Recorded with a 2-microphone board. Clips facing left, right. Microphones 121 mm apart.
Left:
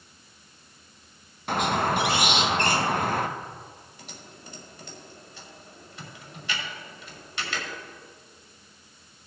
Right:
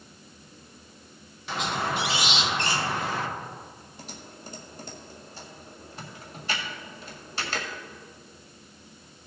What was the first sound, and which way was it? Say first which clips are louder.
A squeak: left 5 dB; 50° left (ahead or behind).